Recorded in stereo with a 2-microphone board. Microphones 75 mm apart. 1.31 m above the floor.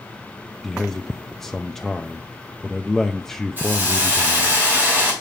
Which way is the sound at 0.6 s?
5° left (ahead or behind).